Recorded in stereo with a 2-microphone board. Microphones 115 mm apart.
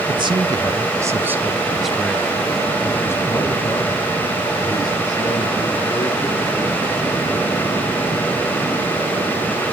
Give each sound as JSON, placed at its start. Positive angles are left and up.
{"t": 0.1, "sound": "a man speaking", "side_deg": -50, "distance_m": 1.5}